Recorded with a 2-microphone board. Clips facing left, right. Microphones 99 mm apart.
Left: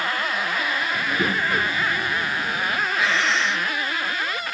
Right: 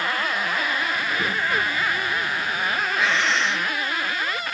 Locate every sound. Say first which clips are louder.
0.9 s a child speaking: left 2 dB; 35° left (ahead or behind); by 2.9 s 25° left (ahead or behind)
3.0 s breathing: even; centre (ahead or behind)